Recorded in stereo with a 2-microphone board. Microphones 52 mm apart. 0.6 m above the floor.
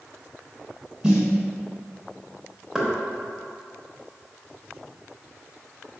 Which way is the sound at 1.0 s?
15° right (ahead or behind).